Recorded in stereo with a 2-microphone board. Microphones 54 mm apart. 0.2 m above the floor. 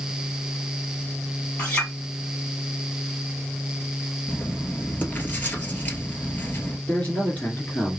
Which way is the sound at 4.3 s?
30° left (ahead or behind).